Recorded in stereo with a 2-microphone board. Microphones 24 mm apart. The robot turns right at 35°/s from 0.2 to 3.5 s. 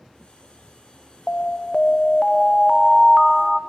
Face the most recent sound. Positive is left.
turn(degrees=-160)